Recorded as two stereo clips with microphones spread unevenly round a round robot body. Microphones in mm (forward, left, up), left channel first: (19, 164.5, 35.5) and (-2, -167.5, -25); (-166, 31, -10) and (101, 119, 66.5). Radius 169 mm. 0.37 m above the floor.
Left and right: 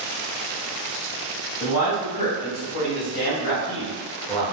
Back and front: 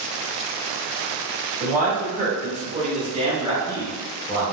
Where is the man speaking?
85° left, 1.9 m; by 4.5 s 115° right, 1.2 m.